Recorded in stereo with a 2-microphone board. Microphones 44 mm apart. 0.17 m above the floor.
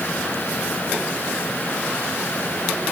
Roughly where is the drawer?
No drawer in this recording.